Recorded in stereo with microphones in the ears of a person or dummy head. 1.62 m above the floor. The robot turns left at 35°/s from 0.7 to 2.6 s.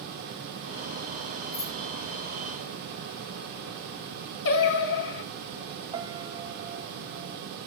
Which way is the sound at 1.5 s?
20° left (ahead or behind).